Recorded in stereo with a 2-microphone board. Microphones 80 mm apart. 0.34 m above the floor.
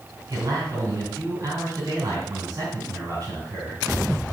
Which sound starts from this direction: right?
A man speaking, at 0.3 s.